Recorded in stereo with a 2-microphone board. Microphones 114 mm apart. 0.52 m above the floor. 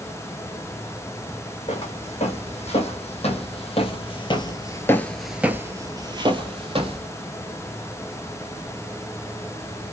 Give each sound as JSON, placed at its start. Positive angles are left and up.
{"t": 1.7, "sound": "footsteps", "side_deg": 70, "distance_m": 1.8}